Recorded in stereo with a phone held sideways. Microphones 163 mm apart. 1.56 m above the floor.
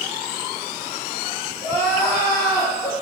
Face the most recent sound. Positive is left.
turn(degrees=20)  # may be behind; listen again after turning